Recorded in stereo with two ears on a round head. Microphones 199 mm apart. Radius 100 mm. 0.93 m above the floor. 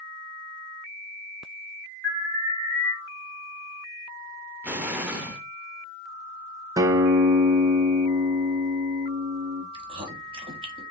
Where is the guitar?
15° right (ahead or behind), 0.5 m.